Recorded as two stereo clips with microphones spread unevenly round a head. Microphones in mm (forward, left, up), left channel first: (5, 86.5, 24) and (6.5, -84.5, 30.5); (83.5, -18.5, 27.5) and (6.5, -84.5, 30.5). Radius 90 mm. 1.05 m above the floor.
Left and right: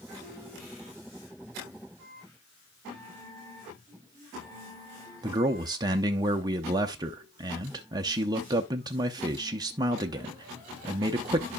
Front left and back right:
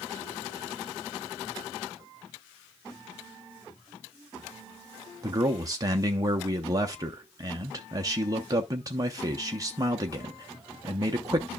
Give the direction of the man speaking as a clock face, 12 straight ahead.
5 o'clock.